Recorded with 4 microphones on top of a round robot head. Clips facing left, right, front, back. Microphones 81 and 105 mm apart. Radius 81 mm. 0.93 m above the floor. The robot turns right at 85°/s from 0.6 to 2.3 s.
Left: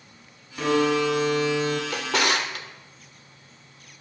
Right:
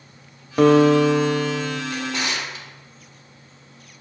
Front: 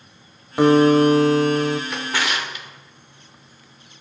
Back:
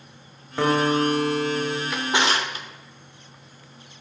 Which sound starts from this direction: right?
A guitar, at 0.6 s.